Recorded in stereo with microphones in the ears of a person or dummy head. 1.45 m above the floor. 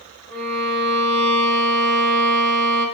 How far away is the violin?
About 1.1 m.